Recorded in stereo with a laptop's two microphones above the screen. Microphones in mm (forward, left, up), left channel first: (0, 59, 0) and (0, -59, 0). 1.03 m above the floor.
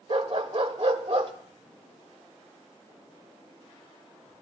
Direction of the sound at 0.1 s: 60° right (ahead or behind).